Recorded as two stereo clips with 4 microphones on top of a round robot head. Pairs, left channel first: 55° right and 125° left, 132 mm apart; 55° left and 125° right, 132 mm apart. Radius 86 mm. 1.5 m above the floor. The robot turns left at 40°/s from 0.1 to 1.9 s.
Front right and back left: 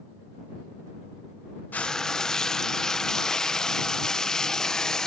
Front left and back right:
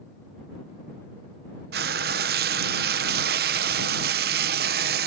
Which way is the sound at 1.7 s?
130° right.